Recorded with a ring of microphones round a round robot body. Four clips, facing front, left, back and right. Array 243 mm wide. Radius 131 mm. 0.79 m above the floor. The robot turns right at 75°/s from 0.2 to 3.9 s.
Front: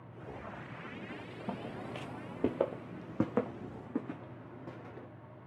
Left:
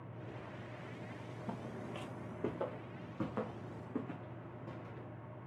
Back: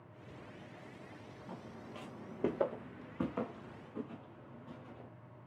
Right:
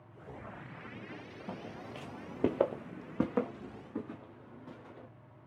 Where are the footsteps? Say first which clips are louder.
Right 1 dB, front 8 dB; 15° right, 1.3 m; by 5.1 s 5° left, 4.5 m.